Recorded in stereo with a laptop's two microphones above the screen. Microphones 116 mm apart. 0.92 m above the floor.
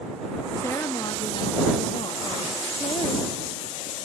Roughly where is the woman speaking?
Centre.